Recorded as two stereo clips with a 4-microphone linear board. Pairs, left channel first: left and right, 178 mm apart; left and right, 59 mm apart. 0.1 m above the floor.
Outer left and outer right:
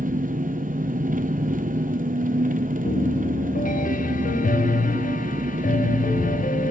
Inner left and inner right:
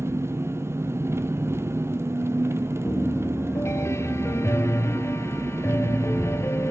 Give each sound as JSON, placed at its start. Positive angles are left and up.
{"t": 0.0, "sound": "an engine running", "side_deg": -50, "distance_m": 0.7}
{"t": 2.9, "sound": "a piano", "side_deg": 50, "distance_m": 0.6}